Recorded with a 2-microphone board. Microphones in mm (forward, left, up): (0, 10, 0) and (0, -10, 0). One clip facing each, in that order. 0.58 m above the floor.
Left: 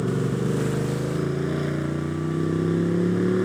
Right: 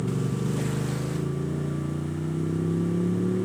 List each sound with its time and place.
0.0 s a motorcycle: 85° left